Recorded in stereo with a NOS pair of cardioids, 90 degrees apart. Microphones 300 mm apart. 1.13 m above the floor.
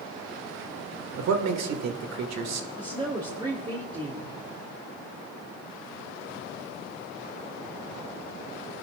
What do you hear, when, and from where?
1.2 s a man speaking: 65° right, 1.8 m
2.8 s a woman speaking: 15° right, 2.5 m